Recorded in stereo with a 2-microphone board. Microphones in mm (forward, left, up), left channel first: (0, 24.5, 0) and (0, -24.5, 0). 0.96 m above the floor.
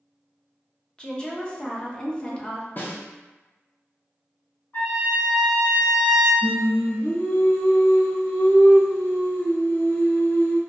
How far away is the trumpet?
About 1.1 m.